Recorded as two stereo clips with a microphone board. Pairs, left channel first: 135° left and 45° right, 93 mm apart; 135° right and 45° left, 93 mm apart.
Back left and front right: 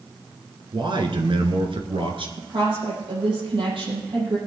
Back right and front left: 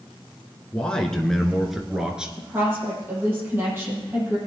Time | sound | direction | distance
0.7 | a man speaking | 55° right | 2.0 m
2.4 | a woman speaking | 20° right | 7.5 m